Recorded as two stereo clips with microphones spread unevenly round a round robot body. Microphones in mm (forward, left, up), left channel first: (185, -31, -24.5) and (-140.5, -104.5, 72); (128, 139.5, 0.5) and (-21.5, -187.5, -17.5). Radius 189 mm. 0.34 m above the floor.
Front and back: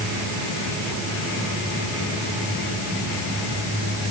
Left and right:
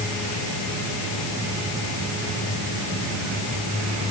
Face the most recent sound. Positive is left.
No sound to turn to.